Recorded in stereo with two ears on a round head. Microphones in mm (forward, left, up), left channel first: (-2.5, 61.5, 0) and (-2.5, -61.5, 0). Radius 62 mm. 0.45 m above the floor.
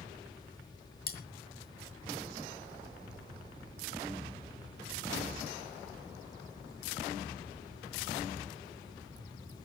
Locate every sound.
1.1 s cutlery clinking: 70° left (ahead or behind), 2.5 m